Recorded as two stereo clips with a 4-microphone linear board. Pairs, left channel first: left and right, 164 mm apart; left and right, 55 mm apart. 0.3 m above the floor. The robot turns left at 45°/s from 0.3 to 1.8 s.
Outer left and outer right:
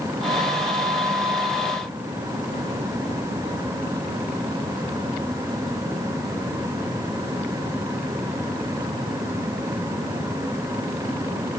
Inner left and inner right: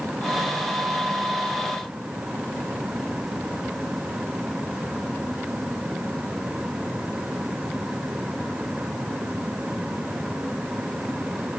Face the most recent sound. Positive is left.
No sound to turn to.